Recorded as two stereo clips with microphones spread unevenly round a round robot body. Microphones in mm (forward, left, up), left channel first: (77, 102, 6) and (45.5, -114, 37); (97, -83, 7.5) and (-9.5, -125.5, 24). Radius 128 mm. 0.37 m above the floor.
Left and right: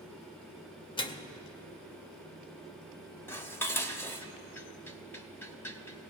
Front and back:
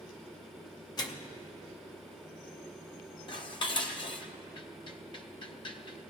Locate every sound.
1.0 s a microwave: 35° left, 0.7 m
3.3 s dishes clattering: 10° left, 0.8 m